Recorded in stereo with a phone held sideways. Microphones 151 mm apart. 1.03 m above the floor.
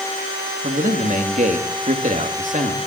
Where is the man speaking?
60° right (ahead or behind), 1.9 m.